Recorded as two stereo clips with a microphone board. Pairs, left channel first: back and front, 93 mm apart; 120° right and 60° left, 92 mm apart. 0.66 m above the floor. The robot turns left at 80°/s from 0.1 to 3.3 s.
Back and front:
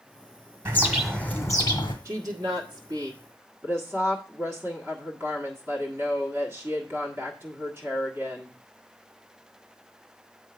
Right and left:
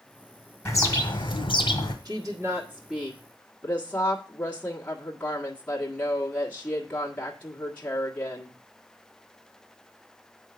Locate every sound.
0.7 s a bird: 60° right, 1.9 m; by 1.9 s 165° right, 1.9 m
2.0 s a woman speaking: 45° left, 1.5 m; by 8.6 s 55° right, 1.5 m